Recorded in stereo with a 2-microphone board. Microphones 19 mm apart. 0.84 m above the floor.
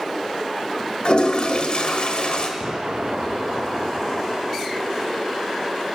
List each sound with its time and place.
1.1 s a toilet flushing: 50° left (ahead or behind), 1.2 m
2.6 s an explosion: 45° right (ahead or behind), 0.5 m